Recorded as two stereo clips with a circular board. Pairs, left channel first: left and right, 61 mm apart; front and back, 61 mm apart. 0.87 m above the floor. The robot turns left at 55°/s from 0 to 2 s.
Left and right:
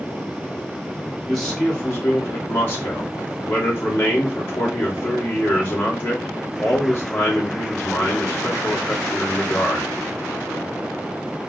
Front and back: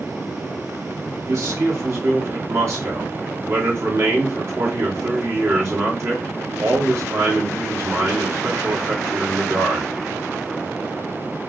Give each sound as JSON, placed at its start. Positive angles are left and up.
{"t": 1.3, "sound": "a man speaking", "azimuth_deg": 180, "distance_m": 2.0}